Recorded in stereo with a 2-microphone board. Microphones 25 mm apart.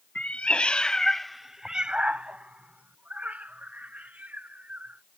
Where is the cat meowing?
55° left (ahead or behind); by 5.0 s 80° right.